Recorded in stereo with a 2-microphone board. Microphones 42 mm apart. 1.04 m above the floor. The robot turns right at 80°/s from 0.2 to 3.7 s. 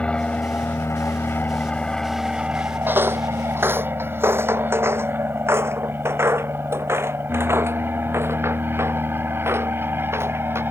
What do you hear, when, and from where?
0.0 s an aircraft: 25° left (ahead or behind); by 10.7 s 55° right (ahead or behind)
2.9 s footsteps: 55° right (ahead or behind); by 10.6 s 80° right